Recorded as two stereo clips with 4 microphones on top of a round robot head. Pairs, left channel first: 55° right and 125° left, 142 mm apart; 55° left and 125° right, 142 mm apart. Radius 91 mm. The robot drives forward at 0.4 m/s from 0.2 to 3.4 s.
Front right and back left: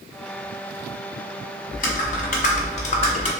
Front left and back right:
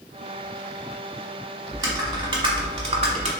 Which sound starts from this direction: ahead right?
Typing on a keyboard, at 1.7 s.